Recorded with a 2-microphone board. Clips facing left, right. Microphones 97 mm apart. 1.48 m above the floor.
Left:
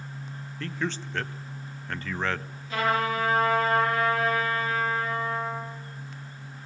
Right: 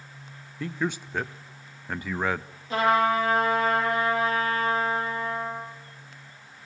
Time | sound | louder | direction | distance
0.6 | a man speaking | right 2 dB | 10° right (ahead or behind) | 0.5 m
2.7 | a trumpet | right 4 dB | 35° right (ahead or behind) | 10 m